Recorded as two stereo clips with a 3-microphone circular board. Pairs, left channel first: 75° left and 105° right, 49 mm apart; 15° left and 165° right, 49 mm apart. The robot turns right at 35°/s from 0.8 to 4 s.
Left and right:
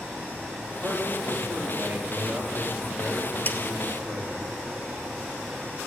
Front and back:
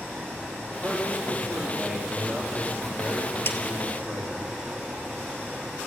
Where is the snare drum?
35° left, 1.1 m; by 3.6 s 40° left, 1.1 m.